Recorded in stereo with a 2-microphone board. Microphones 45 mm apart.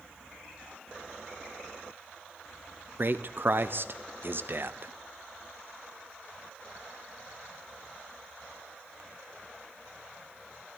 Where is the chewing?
I don't hear chewing.